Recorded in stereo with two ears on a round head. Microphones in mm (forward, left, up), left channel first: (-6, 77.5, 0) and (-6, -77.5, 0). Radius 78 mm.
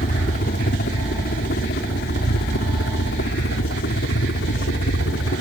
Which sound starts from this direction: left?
A helicopter, at 0.0 s.